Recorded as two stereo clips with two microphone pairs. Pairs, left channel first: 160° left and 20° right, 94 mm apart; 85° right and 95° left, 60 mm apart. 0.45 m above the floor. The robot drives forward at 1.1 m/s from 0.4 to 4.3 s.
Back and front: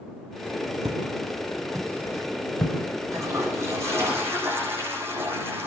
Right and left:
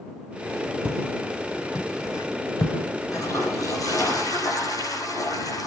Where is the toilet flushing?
75° right, 8 m; by 5.7 s 85° right, 7.5 m.